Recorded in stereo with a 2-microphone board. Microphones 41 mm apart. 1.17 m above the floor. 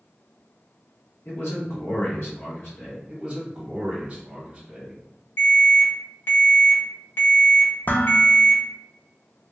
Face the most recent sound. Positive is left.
turn(degrees=50)  # may be behind; listen again after turning